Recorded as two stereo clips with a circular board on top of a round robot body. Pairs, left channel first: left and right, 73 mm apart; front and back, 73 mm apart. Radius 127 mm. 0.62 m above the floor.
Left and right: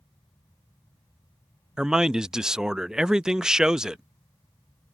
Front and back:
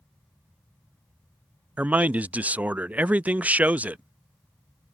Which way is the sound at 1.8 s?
155° right.